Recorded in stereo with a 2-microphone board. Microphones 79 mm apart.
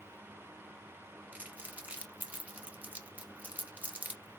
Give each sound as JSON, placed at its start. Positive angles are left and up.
{"t": 1.3, "sound": "crumpling", "side_deg": -20, "distance_m": 0.8}